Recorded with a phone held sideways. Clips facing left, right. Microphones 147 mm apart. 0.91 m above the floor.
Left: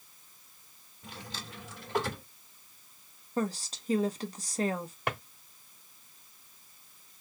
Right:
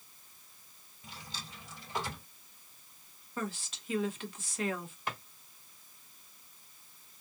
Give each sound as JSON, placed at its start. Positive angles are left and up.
{"t": 1.0, "sound": "a drawer", "side_deg": 55, "distance_m": 2.0}
{"t": 3.4, "sound": "a woman speaking", "side_deg": 40, "distance_m": 1.1}
{"t": 5.1, "sound": "a drawer", "side_deg": 65, "distance_m": 1.1}